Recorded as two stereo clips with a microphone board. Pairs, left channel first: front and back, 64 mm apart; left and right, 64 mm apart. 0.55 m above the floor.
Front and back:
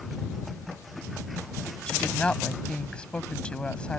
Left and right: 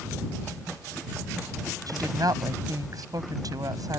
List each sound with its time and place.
1.9 s a woman speaking: 75° right